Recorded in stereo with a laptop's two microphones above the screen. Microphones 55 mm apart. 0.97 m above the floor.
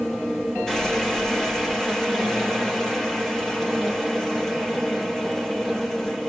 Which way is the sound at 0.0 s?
10° left (ahead or behind).